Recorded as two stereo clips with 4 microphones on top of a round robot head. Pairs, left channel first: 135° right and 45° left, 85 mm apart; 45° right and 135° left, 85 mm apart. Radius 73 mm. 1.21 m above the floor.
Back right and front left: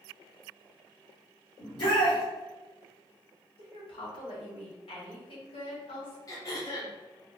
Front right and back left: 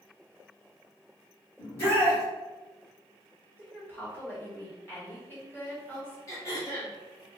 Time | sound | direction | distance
1.6 | a shout | 100° right | 1.4 m
3.6 | a woman speaking | 115° right | 1.8 m
6.3 | throat clearing | 95° right | 1.4 m